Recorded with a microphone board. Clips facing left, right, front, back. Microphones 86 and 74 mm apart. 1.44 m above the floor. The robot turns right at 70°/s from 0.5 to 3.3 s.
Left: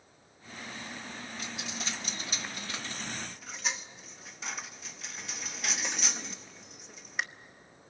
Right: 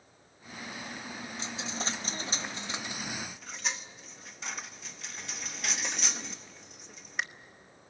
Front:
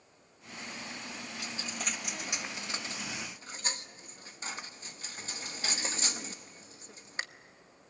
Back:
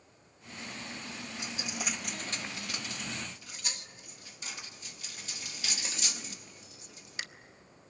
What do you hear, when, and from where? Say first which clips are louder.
1.4 s a dropped coin: right 4 dB, back 1 dB; 130° right, 0.8 m; by 7.2 s straight ahead, 0.8 m